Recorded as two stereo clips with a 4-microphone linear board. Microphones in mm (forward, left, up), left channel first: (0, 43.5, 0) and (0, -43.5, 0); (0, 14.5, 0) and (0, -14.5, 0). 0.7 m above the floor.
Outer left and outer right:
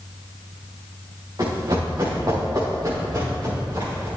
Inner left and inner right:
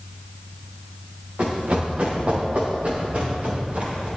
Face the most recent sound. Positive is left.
turn(degrees=-45)  # may be behind; listen again after turning